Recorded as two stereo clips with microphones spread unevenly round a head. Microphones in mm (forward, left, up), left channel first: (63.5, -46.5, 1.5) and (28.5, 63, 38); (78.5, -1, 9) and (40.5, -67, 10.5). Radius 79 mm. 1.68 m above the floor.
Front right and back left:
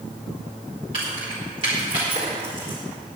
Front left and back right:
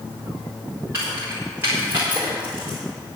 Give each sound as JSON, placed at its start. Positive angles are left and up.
{"t": 0.9, "sound": "keys jangling", "azimuth_deg": 165, "distance_m": 4.0}